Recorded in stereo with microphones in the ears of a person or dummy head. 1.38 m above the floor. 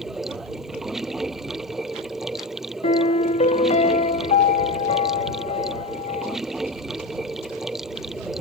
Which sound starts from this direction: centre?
Running water, at 0.0 s.